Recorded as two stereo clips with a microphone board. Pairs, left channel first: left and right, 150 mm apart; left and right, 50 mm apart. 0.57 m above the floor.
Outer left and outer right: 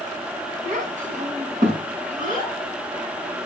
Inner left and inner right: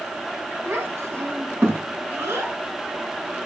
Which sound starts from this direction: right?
A child speaking, at 0.7 s.